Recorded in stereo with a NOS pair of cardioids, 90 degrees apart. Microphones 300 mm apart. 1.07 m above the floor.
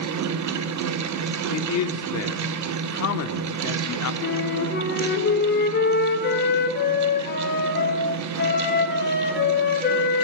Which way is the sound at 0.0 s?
65° right.